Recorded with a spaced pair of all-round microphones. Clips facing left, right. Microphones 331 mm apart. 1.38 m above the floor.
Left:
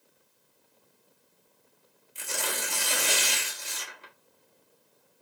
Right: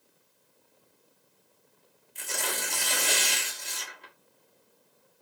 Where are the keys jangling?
I don't hear keys jangling.